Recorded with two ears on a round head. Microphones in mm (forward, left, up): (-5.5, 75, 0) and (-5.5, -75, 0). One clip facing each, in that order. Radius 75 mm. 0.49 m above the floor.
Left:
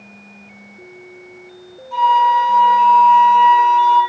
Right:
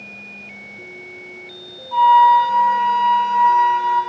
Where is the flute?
45° left (ahead or behind), 2.5 m.